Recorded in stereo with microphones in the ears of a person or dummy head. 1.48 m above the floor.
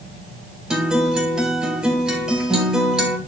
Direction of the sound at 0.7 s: 5° right (ahead or behind).